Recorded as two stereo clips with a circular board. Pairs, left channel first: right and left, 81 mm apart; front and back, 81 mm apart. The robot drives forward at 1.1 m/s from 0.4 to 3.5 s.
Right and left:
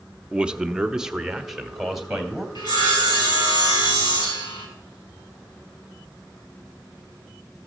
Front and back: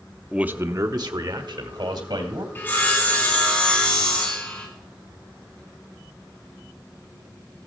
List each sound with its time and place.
0.3 s a man speaking: 140° left, 0.6 m; by 2.5 s 175° left, 2.5 m
2.5 s sawing: 65° right, 4.5 m; by 4.7 s 75° right, 4.5 m